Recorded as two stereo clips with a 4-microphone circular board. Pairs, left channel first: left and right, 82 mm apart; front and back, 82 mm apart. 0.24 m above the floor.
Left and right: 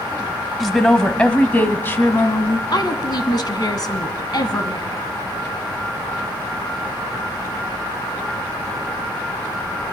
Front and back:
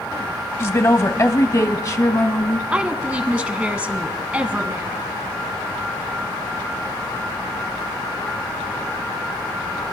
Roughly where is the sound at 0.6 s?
Ahead.